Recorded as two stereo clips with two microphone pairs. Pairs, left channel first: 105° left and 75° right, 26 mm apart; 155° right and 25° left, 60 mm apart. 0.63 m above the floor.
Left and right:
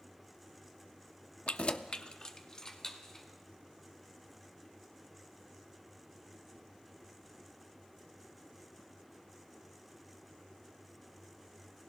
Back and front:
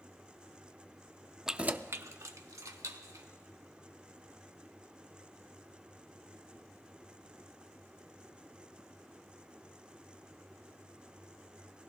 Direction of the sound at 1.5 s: 105° left.